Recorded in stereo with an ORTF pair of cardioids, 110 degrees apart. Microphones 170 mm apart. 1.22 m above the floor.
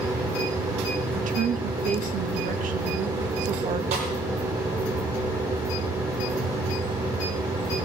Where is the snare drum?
60° right, 10 m.